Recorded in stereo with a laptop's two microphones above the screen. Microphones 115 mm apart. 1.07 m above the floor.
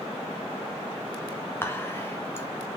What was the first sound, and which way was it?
Whispering, 20° left (ahead or behind).